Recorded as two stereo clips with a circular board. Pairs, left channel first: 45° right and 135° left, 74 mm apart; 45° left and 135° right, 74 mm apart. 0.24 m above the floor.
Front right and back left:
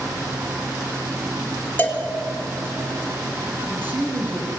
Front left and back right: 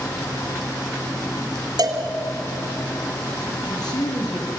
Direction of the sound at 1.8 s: 115° right.